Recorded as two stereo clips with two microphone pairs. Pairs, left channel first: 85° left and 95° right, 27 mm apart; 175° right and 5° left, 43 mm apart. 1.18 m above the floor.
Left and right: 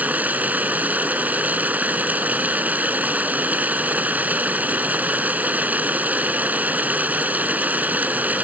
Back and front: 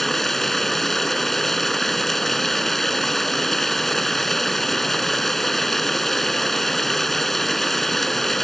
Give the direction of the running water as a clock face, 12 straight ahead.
3 o'clock.